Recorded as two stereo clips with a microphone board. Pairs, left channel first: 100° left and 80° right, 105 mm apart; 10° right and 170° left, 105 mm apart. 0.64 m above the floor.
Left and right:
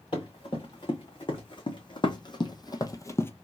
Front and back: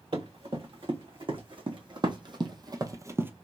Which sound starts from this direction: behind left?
Running footsteps, at 0.1 s.